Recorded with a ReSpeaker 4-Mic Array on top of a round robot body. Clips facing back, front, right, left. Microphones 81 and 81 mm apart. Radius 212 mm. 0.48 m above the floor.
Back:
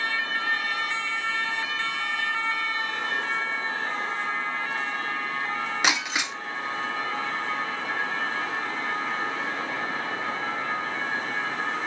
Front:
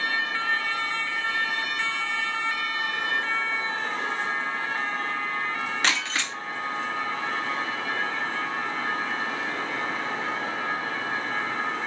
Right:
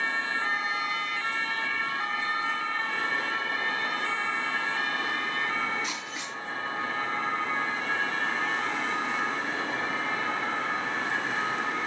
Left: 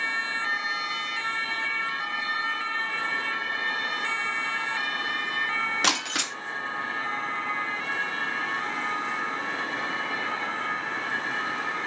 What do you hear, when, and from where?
5.8 s breaking glass: 105° left, 0.6 m